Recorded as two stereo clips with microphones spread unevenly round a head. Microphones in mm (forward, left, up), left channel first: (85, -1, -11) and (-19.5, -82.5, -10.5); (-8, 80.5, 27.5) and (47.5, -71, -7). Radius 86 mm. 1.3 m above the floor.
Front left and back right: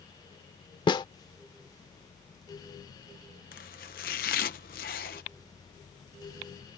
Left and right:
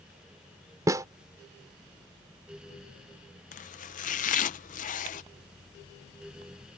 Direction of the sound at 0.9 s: 5° left.